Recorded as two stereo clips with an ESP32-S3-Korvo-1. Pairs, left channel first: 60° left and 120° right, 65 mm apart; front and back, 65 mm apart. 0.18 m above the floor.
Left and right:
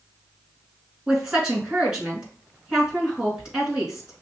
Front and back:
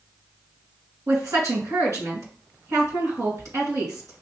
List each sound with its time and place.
1.1 s a woman speaking: 165° left, 2.5 m